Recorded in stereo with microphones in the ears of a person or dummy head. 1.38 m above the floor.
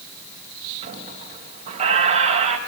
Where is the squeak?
40° right (ahead or behind), 4 m.